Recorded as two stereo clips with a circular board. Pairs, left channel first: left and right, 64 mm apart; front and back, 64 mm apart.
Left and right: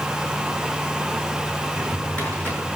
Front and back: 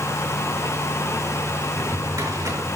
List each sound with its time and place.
1.7 s a drawer: 160° left, 6.5 m